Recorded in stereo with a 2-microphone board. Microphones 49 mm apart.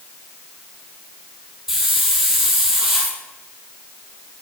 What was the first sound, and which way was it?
A hiss, 5° right (ahead or behind).